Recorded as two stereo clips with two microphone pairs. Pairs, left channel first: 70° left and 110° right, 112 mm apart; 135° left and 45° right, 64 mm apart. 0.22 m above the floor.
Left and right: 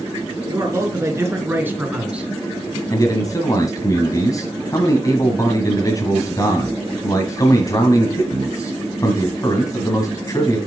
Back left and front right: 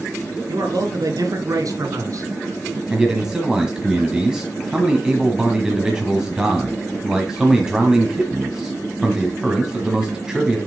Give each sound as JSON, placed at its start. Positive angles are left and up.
{"t": 0.5, "sound": "a man speaking", "azimuth_deg": -55, "distance_m": 3.0}
{"t": 2.9, "sound": "a man speaking", "azimuth_deg": 30, "distance_m": 1.5}